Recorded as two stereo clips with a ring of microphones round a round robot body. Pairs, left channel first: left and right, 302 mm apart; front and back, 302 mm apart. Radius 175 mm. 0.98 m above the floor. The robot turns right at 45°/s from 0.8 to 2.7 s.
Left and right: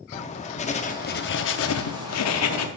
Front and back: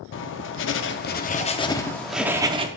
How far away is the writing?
About 0.6 m.